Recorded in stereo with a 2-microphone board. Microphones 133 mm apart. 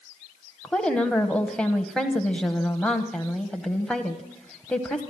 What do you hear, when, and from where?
0.6 s a woman speaking: 10° left (ahead or behind), 1.2 m